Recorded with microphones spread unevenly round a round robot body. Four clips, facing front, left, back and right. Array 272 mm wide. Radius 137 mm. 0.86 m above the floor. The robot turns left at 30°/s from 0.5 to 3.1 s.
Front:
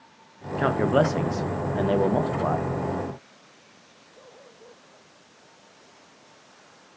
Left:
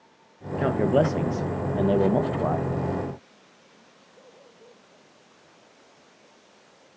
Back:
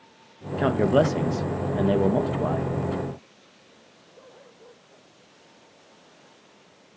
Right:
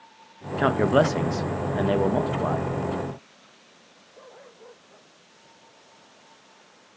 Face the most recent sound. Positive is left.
turn(degrees=125)